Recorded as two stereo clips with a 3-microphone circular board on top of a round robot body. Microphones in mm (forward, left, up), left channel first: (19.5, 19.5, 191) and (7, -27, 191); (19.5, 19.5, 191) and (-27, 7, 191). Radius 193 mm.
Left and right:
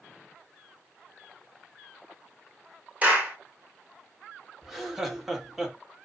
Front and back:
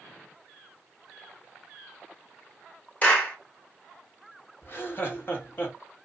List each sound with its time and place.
3.0 s a clap: 40° right, 2 m
4.6 s laughter: 20° right, 1.9 m